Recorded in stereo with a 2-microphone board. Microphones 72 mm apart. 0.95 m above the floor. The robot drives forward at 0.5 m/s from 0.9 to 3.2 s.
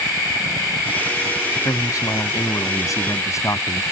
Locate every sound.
1.6 s a man speaking: 50° left (ahead or behind); by 3.8 s 45° left (ahead or behind)